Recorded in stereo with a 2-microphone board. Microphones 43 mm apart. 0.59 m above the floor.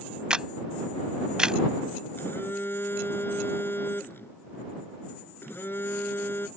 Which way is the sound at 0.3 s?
20° right (ahead or behind).